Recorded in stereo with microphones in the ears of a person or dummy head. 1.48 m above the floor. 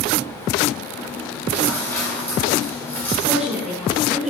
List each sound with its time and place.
1.0 s chewing: 10° left (ahead or behind), 1.8 m
3.2 s a woman speaking: 5° right (ahead or behind), 4 m